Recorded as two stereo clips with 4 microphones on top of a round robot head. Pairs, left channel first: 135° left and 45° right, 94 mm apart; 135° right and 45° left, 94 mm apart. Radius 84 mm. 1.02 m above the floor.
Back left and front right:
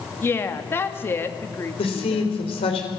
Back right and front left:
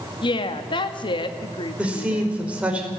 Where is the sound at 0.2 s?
160° right, 2 m.